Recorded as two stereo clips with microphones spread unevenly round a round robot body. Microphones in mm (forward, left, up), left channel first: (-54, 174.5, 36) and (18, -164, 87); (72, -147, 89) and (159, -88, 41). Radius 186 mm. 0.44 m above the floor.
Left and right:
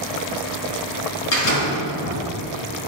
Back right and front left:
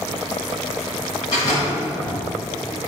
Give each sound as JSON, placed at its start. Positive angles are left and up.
{"t": 1.3, "sound": "a door slam", "azimuth_deg": 145, "distance_m": 6.0}